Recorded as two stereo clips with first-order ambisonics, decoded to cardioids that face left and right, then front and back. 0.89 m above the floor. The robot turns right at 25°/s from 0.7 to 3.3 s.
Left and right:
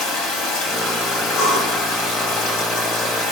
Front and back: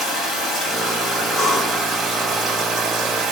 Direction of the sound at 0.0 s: 75° left.